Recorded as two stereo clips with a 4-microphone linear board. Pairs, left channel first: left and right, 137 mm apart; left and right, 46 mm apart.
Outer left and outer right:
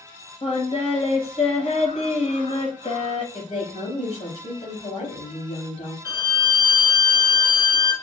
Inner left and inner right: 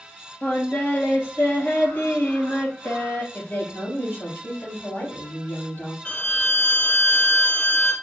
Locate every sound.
0.4 s singing: 50° left (ahead or behind), 2 m
3.3 s a woman speaking: 60° left (ahead or behind), 3 m
6.0 s a violin: 30° left (ahead or behind), 1.0 m